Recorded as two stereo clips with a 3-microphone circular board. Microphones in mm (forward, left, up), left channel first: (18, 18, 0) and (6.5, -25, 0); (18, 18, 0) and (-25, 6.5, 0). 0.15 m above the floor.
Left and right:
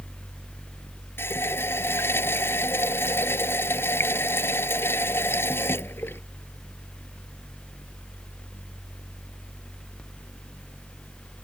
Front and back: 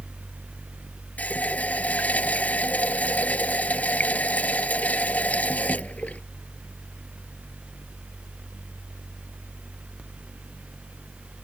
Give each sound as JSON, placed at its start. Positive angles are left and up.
{"t": 1.2, "sound": "a running tap", "azimuth_deg": 65}